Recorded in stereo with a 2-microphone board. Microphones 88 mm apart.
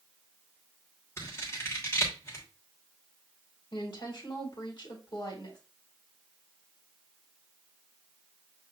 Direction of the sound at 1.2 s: 30° left (ahead or behind).